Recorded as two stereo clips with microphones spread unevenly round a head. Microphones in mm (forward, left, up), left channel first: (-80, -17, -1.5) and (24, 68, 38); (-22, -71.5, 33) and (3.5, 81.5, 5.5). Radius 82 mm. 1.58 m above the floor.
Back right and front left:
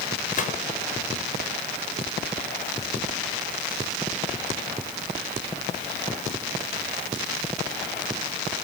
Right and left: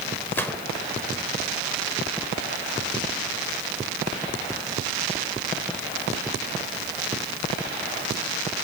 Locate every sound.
0.3 s a gunshot: 175° right, 4 m